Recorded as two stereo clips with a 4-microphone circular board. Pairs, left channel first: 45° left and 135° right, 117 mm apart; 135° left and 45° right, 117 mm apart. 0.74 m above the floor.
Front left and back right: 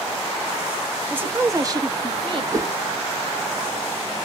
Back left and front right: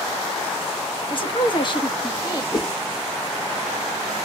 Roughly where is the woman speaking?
Behind left.